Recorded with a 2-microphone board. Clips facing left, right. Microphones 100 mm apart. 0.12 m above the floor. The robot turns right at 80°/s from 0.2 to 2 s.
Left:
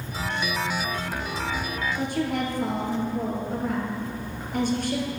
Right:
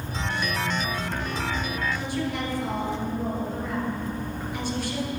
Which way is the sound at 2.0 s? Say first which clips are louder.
Left 3 dB; 50° left (ahead or behind).